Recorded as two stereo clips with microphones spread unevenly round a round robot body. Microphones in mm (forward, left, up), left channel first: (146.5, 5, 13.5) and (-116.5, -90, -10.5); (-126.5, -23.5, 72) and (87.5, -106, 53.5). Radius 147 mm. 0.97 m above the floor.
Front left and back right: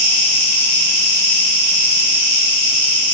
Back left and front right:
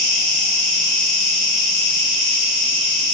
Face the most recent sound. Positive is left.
turn(degrees=70)